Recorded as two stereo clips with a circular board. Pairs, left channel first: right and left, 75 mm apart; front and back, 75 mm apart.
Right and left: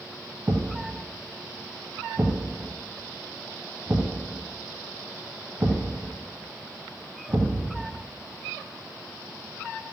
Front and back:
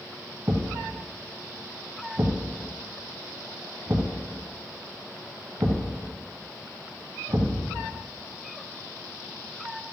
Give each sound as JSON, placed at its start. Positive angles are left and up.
{"t": 0.5, "sound": "a thud", "azimuth_deg": 140, "distance_m": 1.3}